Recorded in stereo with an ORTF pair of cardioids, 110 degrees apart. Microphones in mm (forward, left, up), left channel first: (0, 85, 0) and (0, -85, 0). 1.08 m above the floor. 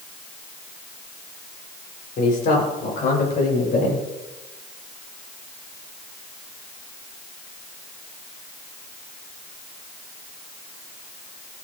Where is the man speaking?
55° left, 4.5 m; by 4.0 s 50° left, 7.5 m.